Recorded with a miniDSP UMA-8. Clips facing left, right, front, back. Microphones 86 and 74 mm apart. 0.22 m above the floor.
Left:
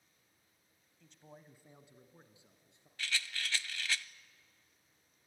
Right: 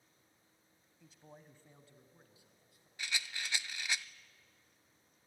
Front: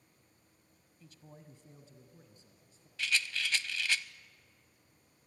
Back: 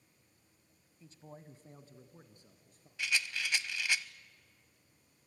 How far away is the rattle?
About 0.5 m.